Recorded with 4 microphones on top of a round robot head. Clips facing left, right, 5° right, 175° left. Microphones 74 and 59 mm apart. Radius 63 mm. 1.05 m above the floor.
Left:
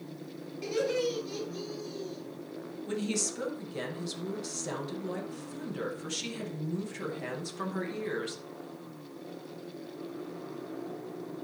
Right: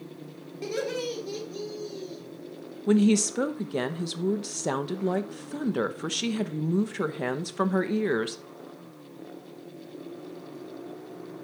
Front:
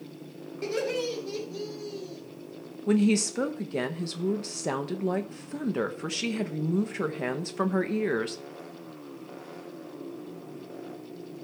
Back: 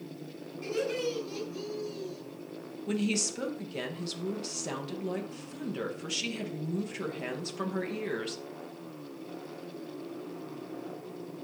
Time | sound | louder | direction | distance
0.6 | laughter | left 1 dB, front 2 dB | 35° right | 2.5 m
2.9 | a woman speaking | right 13 dB, front 8 dB | 60° right | 0.8 m